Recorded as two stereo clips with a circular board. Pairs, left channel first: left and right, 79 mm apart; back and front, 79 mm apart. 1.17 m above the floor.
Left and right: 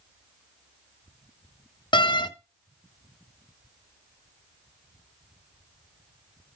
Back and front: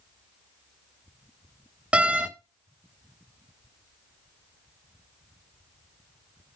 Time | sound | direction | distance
1.9 | a door slam | 75° left | 0.6 m